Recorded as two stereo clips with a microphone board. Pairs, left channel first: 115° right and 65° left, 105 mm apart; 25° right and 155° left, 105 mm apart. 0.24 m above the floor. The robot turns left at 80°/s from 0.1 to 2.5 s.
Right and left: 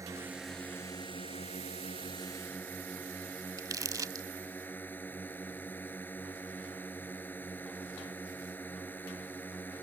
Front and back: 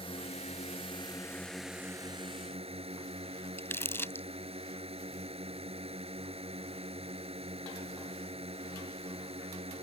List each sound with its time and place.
0.0 s a drone: 5° left; by 9.8 s 175° left
3.6 s crumpling: 35° left